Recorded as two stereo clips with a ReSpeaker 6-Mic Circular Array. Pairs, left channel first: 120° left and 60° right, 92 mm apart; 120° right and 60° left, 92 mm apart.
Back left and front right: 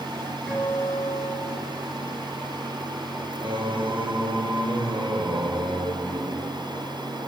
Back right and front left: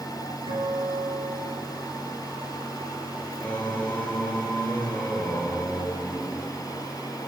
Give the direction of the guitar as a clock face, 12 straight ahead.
11 o'clock.